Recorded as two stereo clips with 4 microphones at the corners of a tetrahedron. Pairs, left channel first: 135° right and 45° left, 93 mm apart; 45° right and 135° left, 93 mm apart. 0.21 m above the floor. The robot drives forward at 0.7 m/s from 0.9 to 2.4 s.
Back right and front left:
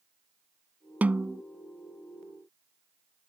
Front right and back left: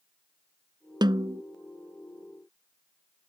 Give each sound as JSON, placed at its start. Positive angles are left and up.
{"t": 1.0, "sound": "a snare drum", "azimuth_deg": 115}